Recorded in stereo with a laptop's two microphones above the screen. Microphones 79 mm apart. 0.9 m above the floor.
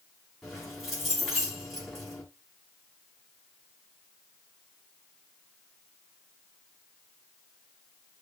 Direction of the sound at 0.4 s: Centre (ahead or behind).